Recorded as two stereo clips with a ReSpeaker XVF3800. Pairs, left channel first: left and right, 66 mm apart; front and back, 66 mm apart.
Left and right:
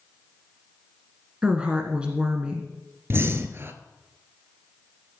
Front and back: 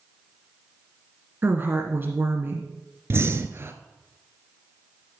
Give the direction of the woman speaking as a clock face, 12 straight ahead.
5 o'clock.